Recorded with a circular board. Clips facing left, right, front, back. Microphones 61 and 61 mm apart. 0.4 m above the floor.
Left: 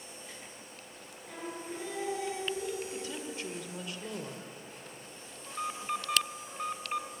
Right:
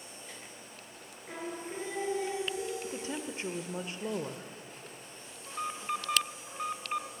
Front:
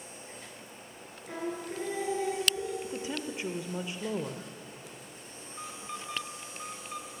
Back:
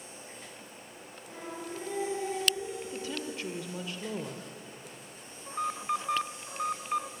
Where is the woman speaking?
55° right, 1.0 m.